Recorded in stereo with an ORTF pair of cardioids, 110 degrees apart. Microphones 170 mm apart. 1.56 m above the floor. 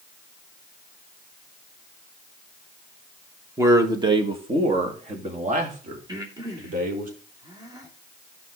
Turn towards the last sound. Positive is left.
turn(degrees=-25)